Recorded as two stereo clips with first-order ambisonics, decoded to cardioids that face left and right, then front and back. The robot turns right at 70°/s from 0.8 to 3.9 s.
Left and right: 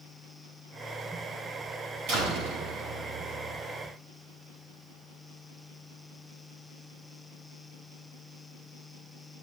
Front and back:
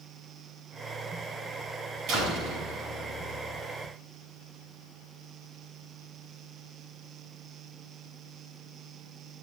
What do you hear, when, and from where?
2.1 s a door slam: 130° right, 5.5 m; by 3.6 s 30° right, 5.5 m